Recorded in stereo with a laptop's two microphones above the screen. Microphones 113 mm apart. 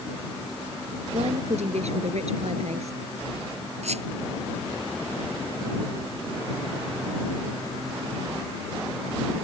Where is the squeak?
90° right.